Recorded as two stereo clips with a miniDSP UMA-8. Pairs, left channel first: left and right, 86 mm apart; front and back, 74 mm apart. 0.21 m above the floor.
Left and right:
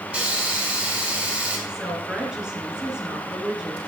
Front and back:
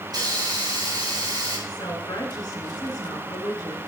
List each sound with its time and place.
0.1 s a hiss: 165° right, 3 m
1.7 s a woman speaking: 10° right, 3 m